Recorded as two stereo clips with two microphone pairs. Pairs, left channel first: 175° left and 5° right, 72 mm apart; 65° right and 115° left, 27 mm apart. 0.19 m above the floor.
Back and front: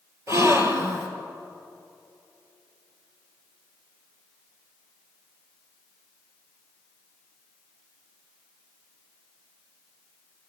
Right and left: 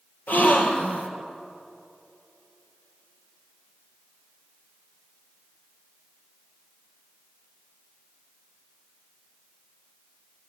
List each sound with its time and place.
0.3 s a gasp: 50° right, 3.5 m